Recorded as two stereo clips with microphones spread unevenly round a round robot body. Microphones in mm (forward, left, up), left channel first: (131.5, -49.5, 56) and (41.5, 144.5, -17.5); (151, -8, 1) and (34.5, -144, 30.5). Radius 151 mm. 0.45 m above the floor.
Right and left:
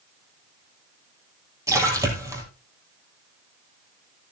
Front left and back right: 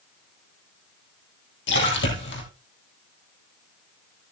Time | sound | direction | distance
1.7 | a splash | 40° left | 4 m